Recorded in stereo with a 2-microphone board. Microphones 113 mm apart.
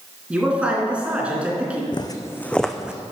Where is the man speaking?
10° right (ahead or behind), 2.5 m.